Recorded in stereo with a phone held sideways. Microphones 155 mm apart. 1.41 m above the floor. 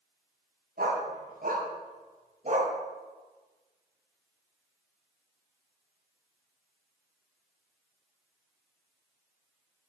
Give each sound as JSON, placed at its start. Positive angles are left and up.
{"t": 0.8, "sound": "a dog barking", "side_deg": -75, "distance_m": 4.0}